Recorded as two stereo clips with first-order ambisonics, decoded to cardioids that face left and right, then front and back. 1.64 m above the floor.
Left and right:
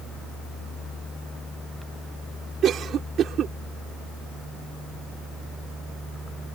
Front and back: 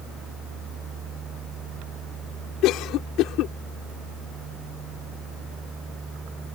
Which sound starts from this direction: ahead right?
A cough, at 2.6 s.